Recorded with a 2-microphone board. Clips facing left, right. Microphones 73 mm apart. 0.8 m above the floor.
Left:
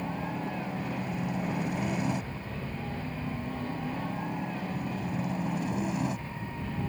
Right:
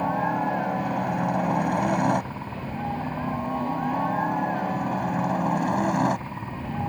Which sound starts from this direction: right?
A helicopter, at 0.0 s.